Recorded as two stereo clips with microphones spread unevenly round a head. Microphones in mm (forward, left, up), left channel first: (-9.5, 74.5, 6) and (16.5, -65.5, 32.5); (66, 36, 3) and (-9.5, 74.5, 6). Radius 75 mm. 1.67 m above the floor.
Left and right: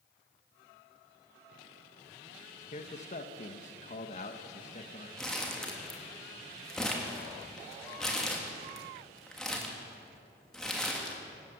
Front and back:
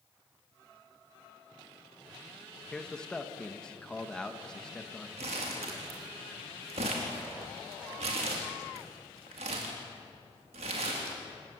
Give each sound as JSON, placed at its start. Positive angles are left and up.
{"t": 2.7, "sound": "a man speaking", "azimuth_deg": 55, "distance_m": 1.6}
{"t": 5.2, "sound": "crumpling", "azimuth_deg": -170, "distance_m": 3.0}